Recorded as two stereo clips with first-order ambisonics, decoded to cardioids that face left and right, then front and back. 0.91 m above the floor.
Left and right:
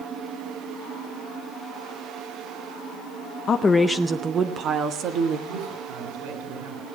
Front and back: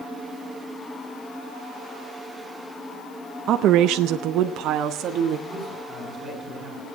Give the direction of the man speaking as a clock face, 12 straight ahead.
3 o'clock.